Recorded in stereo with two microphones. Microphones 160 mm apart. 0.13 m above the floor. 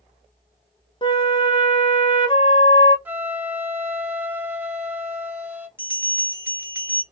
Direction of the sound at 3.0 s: 10° right (ahead or behind).